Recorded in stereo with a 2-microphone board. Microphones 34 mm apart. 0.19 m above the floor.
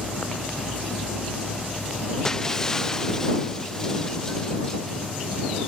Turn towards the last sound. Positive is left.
turn(degrees=15)  # may be behind; listen again after turning